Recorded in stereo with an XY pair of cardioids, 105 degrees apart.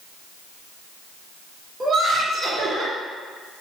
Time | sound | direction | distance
1.8 | laughter | 40° right | 1.5 m